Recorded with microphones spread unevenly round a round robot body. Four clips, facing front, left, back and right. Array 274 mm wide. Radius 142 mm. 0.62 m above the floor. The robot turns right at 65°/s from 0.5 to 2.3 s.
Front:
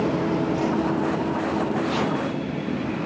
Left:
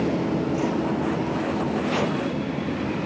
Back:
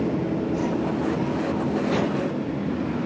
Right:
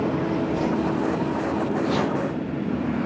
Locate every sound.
0.5 s a whoosh: 135° right, 6 m; by 0.7 s 120° right, 6 m
1.8 s chopping: 130° right, 7 m; by 2.1 s 110° right, 7 m